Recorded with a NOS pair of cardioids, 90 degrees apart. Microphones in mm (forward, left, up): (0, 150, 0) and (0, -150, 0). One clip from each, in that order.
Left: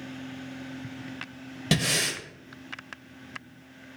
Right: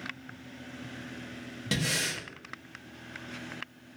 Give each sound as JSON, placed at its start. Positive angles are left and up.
{"t": 1.7, "sound": "breathing", "azimuth_deg": 30, "distance_m": 0.6}